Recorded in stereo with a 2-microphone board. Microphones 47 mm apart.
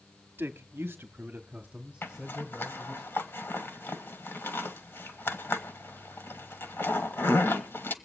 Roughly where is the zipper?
Left.